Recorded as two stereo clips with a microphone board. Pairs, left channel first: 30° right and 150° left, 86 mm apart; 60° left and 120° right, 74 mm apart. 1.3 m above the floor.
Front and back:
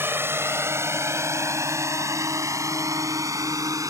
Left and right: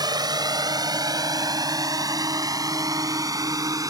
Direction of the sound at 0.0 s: 145° right.